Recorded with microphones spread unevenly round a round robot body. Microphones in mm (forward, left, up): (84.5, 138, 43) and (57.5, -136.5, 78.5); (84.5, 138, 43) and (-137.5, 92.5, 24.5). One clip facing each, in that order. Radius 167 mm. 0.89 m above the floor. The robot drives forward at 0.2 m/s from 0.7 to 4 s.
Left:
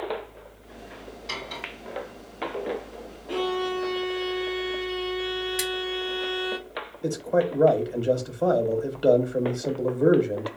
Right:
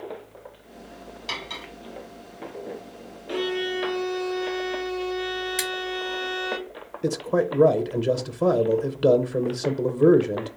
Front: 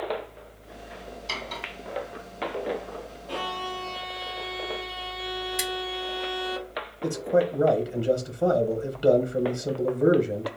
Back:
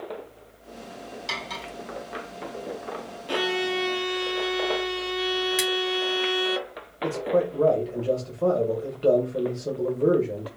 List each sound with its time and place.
1.3 s cutlery clinking: 150° right, 2.5 m
3.3 s a violin: 175° left, 0.6 m; by 6.6 s straight behind, 0.7 m
5.6 s scissors: 145° right, 1.5 m
7.0 s a man speaking: 60° right, 0.7 m